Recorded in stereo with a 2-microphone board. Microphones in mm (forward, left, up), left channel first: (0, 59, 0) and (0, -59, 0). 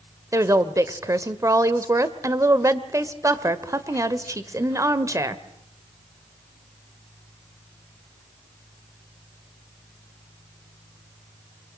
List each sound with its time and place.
0.3 s a woman speaking: 25° right (ahead or behind), 1.2 m